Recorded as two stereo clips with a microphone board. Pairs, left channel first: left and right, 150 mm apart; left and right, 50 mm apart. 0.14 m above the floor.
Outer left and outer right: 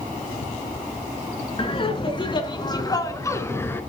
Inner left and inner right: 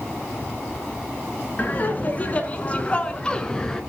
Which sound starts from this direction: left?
Laughter, at 1.6 s.